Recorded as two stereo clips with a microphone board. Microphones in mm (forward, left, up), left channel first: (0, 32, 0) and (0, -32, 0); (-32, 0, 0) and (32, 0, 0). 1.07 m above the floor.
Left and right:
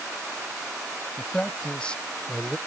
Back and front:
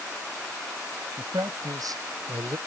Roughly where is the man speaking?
Ahead.